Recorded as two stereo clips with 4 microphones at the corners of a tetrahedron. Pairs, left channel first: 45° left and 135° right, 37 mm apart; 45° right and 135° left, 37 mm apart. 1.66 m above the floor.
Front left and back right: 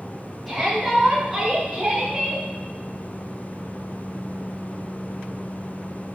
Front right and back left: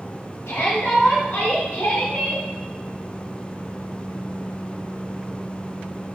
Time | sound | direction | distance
0.5 | a shout | 40° right | 4.5 m